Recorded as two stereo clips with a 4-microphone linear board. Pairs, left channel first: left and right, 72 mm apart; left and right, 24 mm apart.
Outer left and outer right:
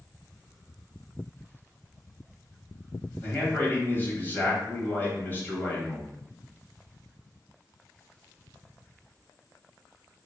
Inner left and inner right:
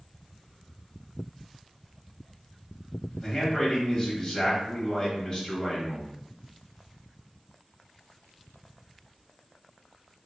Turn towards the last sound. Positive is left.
turn(degrees=30)  # may be behind; listen again after turning